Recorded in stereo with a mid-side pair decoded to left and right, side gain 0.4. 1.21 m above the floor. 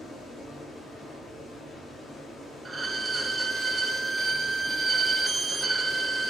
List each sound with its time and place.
0.0 s running water: 65° left, 1.5 m
2.6 s a violin: 30° right, 0.5 m